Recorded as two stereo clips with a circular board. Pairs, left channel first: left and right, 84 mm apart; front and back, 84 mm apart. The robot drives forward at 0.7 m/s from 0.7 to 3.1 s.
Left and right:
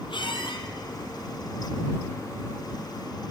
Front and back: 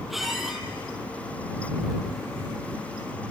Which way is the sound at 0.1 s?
90° left.